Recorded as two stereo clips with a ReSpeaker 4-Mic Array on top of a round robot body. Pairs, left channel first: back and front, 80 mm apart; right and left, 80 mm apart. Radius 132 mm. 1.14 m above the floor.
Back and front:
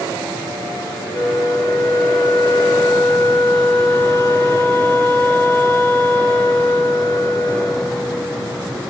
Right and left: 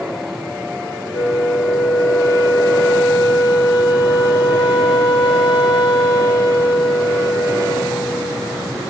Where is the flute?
120° right, 1.2 m.